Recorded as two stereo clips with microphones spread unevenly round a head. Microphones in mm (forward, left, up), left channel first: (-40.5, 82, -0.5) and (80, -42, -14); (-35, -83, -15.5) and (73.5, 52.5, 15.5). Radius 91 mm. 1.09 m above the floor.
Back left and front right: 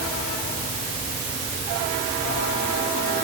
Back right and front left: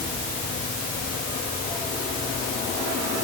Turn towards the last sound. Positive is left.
No sound to turn to.